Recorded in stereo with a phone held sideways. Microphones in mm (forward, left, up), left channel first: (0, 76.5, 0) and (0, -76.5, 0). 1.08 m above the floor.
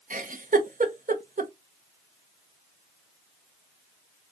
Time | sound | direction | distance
0.1 | a giggle | 60° right (ahead or behind) | 0.5 m